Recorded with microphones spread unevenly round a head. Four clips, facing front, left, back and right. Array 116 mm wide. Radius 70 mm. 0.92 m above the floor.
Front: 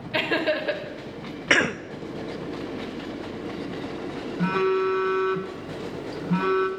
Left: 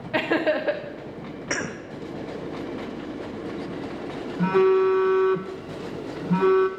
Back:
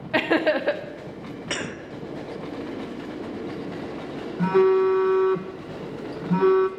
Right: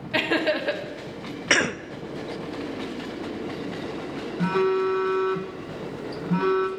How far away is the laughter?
About 1.4 m.